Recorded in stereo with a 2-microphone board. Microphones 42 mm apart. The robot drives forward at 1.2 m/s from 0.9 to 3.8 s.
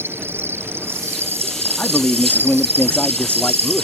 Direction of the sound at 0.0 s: 65° right (ahead or behind).